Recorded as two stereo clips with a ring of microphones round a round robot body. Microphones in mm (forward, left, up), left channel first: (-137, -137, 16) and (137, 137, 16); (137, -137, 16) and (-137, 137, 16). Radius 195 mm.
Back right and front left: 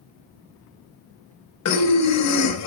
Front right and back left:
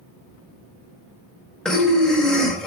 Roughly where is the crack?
No crack in this recording.